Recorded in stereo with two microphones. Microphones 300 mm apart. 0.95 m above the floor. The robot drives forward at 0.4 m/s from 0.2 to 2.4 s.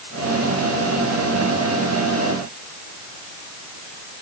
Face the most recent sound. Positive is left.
No sound to turn to.